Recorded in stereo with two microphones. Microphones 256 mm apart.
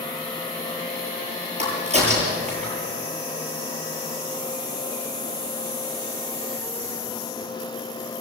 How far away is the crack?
About 9 m.